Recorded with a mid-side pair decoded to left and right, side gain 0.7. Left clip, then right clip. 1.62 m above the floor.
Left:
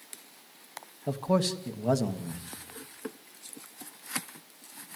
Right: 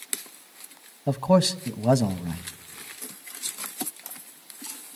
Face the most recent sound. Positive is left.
turn(degrees=-25)